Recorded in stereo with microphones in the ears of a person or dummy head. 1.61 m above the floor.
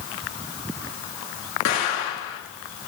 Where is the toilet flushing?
No toilet flushing in this recording.